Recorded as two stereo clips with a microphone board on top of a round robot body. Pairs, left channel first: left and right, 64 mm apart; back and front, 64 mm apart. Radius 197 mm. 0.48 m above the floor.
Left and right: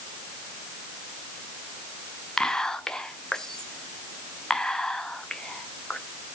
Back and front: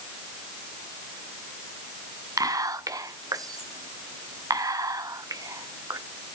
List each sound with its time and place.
2.4 s whispering: 10° left, 1.4 m